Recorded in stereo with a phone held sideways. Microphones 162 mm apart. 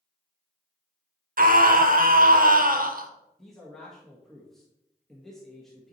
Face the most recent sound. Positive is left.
turn(degrees=0)  # may be behind; listen again after turning